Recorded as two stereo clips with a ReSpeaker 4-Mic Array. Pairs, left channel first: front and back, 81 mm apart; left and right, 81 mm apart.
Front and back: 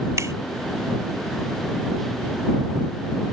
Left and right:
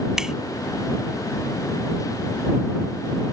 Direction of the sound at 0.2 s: 170° right.